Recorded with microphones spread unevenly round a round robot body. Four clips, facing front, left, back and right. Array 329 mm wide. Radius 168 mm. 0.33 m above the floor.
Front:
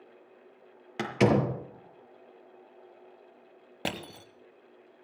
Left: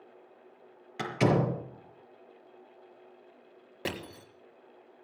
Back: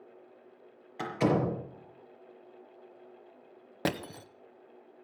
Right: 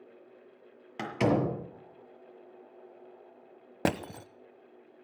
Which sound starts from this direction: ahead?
A door slam, at 1.0 s.